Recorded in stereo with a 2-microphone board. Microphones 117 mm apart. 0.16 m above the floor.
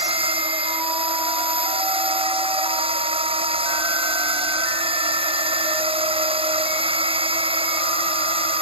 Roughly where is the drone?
Right.